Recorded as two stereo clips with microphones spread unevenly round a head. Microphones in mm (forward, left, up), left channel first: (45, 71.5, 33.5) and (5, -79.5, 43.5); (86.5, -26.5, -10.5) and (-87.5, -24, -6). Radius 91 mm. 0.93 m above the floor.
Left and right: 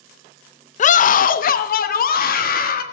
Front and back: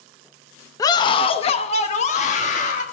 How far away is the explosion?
I don't hear an explosion.